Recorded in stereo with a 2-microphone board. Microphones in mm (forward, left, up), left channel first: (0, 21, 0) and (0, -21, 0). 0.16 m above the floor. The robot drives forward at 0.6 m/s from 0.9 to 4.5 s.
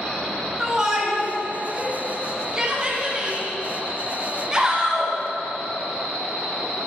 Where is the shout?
15° right (ahead or behind), 1.9 m; by 5.1 s 20° right (ahead or behind), 1.6 m.